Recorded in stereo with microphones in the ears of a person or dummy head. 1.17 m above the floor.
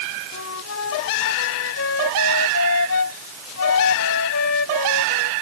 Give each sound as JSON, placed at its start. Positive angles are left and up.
{"t": 0.3, "sound": "a flute", "side_deg": 85}